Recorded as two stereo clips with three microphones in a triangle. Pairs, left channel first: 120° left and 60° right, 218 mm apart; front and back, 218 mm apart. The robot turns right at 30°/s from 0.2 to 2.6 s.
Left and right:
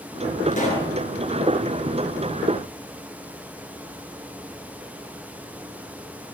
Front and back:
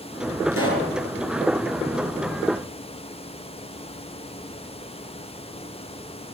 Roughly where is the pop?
Behind.